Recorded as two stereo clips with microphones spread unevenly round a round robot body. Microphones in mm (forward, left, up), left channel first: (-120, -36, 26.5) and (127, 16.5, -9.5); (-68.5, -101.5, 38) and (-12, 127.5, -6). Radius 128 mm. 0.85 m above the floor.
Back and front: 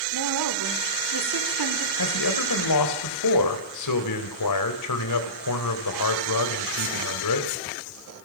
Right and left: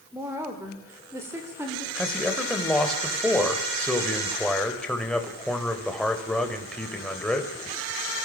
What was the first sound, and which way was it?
A woman speaking, 5° right.